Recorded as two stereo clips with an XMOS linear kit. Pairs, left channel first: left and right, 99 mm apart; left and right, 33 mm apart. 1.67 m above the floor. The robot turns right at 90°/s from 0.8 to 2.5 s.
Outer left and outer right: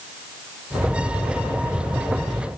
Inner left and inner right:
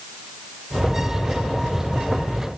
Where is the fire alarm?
I don't hear a fire alarm.